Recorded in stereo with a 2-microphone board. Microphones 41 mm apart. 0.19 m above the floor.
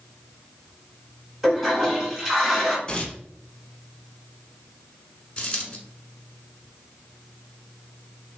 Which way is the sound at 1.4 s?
10° right (ahead or behind).